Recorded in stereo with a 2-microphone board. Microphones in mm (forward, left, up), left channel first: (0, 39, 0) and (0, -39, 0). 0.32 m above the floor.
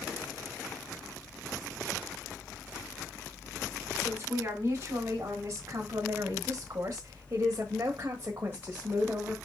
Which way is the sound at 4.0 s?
30° right (ahead or behind).